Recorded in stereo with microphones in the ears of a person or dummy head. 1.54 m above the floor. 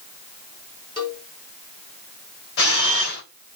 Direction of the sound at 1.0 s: 35° left (ahead or behind).